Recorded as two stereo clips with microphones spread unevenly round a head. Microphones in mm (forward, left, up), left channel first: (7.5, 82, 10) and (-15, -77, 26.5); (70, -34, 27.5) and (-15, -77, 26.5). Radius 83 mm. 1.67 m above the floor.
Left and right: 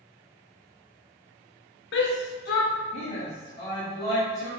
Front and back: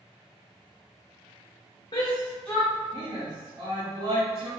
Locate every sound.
1.9 s a shout: 85° left, 0.6 m; by 4.5 s 150° left, 1.5 m